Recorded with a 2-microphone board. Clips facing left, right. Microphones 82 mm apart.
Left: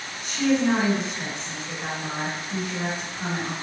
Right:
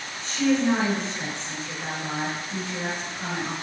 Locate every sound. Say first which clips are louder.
0.2 s a woman speaking: even; 15° left (ahead or behind), 1.6 m